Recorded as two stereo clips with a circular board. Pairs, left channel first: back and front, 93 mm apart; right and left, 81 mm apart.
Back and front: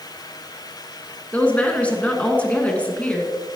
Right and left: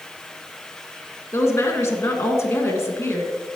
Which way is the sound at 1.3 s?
115° right.